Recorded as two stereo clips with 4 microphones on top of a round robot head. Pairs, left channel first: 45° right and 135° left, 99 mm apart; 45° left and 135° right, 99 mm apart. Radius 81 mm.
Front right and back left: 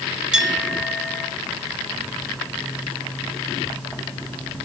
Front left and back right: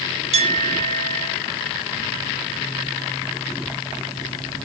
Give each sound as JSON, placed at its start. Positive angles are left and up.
{"t": 0.3, "sound": "a clink", "azimuth_deg": -140, "distance_m": 3.0}